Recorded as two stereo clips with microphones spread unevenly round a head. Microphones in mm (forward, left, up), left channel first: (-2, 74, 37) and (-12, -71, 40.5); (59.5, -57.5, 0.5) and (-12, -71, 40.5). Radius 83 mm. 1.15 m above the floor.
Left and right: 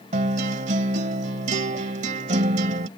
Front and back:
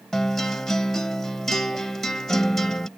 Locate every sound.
0.1 s a guitar: 110° right